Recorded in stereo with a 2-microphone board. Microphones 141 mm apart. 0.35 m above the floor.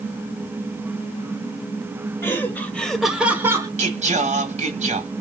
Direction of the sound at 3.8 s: 55° right (ahead or behind).